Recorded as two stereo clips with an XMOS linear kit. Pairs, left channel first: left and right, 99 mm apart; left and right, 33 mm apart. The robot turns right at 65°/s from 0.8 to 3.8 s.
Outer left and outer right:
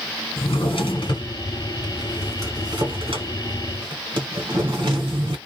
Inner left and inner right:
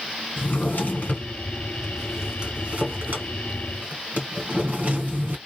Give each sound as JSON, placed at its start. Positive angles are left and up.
{"t": 0.4, "sound": "a drawer", "side_deg": 75, "distance_m": 1.4}